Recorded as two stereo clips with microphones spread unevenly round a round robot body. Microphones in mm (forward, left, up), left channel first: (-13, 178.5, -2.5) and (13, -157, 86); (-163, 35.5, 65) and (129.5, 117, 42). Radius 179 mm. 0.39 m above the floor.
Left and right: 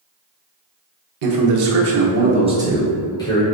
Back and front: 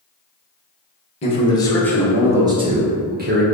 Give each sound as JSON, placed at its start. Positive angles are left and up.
{"t": 1.2, "sound": "a man speaking", "azimuth_deg": -95, "distance_m": 1.0}